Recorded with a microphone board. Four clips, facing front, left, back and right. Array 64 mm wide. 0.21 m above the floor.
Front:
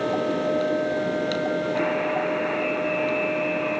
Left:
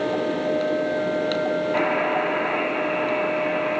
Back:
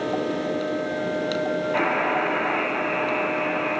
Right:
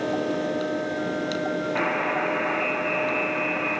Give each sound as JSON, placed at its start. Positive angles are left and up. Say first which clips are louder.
{"t": 1.7, "sound": "a buzzer", "louder": "left 2 dB, back 1 dB", "azimuth_deg": 135, "distance_m": 2.5}